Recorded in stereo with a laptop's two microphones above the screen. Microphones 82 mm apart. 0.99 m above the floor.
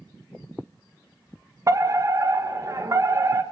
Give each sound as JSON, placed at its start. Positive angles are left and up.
{"t": 1.7, "sound": "a fire alarm", "side_deg": -40, "distance_m": 1.7}